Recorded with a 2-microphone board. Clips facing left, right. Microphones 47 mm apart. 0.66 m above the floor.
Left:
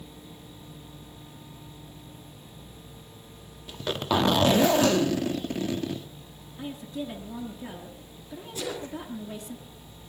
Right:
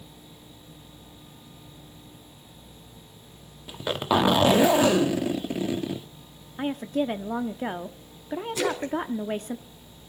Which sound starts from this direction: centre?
A zipper, at 3.7 s.